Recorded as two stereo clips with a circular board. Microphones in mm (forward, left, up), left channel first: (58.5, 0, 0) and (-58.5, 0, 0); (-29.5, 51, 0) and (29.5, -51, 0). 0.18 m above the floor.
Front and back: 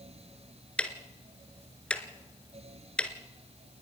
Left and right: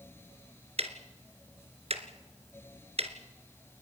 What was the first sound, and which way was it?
Ticking, 80° right.